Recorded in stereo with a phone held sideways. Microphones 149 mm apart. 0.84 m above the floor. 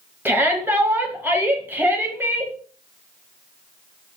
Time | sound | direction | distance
0.2 | a shout | 15° right (ahead or behind) | 0.8 m